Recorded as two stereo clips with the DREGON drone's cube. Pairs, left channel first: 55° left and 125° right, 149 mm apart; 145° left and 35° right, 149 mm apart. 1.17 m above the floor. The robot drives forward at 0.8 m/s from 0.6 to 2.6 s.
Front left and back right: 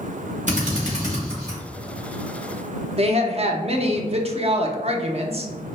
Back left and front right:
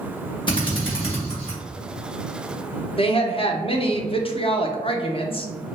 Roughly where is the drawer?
No drawer in this recording.